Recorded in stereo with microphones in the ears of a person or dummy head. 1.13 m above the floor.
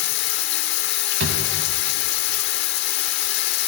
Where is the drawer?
70° right (ahead or behind), 3 m.